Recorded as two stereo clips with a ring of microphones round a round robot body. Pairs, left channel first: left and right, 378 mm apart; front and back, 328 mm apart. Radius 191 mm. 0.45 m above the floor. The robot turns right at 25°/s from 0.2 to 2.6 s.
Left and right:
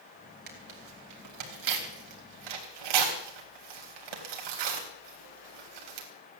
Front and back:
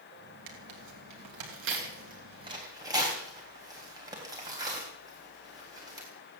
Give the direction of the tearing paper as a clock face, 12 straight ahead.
5 o'clock.